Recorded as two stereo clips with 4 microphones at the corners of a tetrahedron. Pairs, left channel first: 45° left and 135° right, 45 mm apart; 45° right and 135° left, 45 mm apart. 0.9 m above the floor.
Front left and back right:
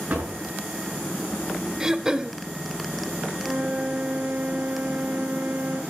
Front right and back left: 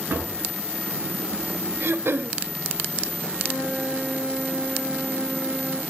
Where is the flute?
170° left, 6 m.